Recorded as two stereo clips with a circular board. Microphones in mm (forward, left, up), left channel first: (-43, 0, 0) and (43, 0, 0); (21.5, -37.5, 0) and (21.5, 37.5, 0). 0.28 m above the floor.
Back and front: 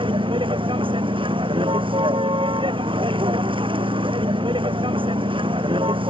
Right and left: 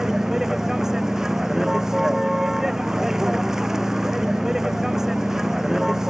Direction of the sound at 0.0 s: 5° left.